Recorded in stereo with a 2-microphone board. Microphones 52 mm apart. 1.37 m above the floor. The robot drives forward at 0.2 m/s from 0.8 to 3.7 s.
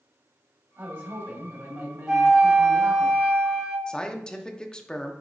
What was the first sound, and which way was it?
A man speaking, 45° right (ahead or behind).